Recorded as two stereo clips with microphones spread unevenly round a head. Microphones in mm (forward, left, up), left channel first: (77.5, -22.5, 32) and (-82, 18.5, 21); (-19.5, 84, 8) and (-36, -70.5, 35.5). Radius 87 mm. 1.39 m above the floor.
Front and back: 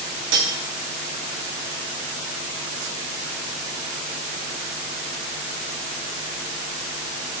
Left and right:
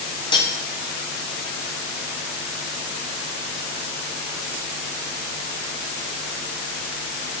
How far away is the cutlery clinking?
About 2 m.